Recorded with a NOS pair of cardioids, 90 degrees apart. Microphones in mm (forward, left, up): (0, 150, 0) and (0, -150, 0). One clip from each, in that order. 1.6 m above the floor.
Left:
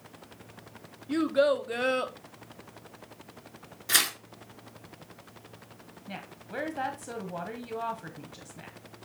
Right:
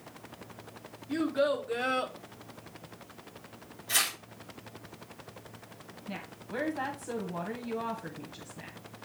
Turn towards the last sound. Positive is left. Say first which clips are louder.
# even
turn(degrees=20)